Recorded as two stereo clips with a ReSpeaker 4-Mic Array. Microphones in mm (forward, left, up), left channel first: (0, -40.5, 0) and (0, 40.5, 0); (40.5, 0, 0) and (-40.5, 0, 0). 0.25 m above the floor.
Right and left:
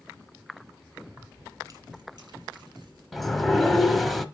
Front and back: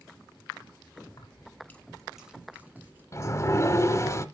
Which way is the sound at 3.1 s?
Straight ahead.